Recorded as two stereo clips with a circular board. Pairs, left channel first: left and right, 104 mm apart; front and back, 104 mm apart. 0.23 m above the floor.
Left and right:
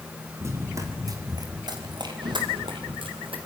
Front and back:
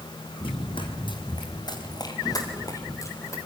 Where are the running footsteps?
30° right, 5.5 m; by 3.4 s 60° right, 6.5 m.